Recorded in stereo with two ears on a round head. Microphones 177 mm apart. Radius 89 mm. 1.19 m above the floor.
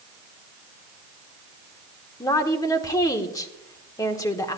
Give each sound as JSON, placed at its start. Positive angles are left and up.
{"t": 2.2, "sound": "a woman speaking", "side_deg": 20, "distance_m": 1.2}